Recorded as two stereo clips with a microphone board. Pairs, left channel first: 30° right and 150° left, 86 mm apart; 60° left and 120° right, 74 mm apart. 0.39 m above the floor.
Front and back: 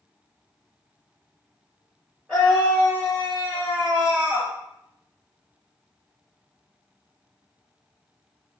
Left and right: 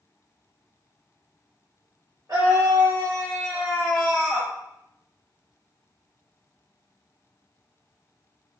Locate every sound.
2.3 s a scream: 105° right, 1.2 m; by 4.5 s 125° left, 0.8 m